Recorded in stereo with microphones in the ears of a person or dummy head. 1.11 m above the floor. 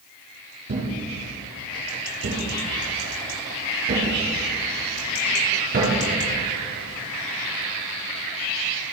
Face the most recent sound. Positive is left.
turn(degrees=-55)  # may be behind; listen again after turning